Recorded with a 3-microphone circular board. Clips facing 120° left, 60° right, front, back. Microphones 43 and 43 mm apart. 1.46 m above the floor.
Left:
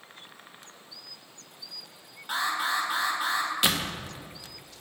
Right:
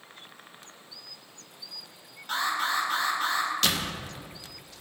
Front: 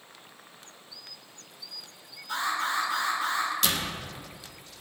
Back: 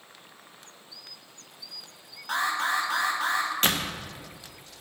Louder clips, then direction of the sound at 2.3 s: Even, back 2 dB; 160° right.